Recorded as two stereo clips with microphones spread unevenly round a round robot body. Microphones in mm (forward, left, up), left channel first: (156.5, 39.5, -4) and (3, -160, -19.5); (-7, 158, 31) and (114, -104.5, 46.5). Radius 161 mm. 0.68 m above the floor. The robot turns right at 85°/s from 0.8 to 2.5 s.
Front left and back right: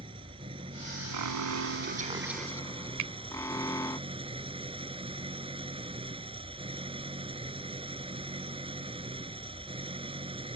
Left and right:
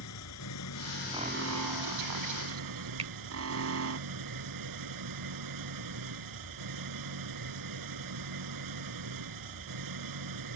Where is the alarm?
145° right; by 4.0 s 25° right.